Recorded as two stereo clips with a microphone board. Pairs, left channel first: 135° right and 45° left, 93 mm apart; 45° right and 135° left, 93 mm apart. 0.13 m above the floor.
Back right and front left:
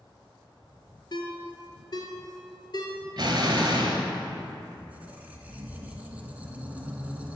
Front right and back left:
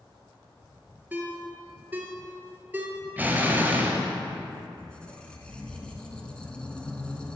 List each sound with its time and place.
1.1 s a ringtone: 160° right, 0.8 m
3.2 s an explosion: 70° left, 0.9 m
4.8 s a squeak: 10° left, 0.6 m